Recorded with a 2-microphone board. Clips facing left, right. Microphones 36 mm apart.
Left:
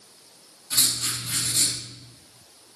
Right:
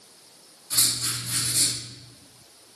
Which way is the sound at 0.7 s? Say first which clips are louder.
Left 1 dB; 65° left (ahead or behind).